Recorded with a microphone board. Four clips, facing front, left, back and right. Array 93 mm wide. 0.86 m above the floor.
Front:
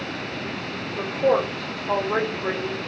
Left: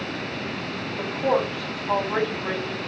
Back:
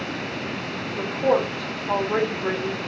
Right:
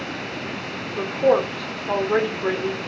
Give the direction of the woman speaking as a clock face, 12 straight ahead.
3 o'clock.